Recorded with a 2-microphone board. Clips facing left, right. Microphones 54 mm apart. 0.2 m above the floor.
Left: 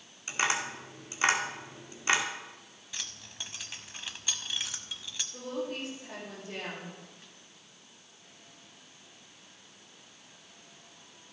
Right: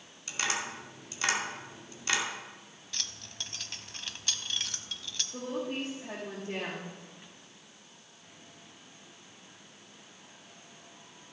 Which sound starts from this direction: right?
A woman speaking, at 5.3 s.